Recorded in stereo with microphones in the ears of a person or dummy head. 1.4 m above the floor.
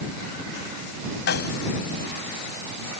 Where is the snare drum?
60° left (ahead or behind).